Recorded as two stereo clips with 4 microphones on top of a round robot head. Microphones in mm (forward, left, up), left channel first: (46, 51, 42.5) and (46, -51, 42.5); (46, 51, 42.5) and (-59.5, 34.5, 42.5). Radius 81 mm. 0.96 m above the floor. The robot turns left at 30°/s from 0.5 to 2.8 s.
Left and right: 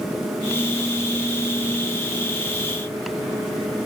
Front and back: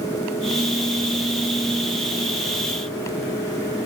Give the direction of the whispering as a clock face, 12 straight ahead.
No whispering in this recording.